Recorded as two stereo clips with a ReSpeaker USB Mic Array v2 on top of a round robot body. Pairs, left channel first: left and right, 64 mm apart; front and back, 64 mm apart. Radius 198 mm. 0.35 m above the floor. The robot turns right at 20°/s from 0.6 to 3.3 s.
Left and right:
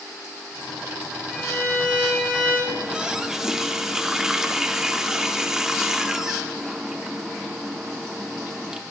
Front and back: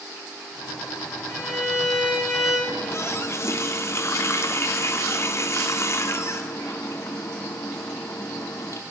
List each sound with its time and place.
1.3 s a violin: 60° left, 3.5 m; by 2.6 s 85° left, 3.5 m
2.7 s a running tap: 25° right, 0.7 m; by 8.8 s 10° right, 0.7 m